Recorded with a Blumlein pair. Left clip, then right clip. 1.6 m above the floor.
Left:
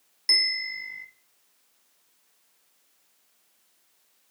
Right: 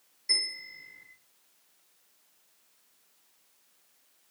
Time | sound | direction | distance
0.3 | a bell | 40° left | 0.7 m